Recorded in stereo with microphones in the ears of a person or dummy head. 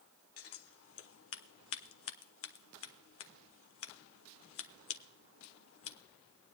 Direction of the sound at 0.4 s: 70° left (ahead or behind).